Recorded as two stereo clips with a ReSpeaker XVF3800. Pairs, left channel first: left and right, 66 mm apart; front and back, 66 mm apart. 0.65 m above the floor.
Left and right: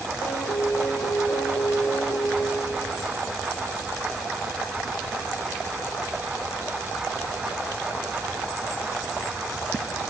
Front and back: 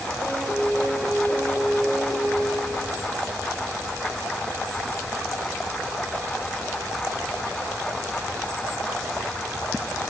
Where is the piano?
75° left, 5.5 m.